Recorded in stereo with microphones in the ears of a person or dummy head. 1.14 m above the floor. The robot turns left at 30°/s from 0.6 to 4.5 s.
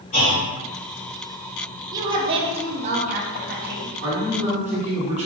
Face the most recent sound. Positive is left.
turn(degrees=-40)  # may be behind; listen again after turning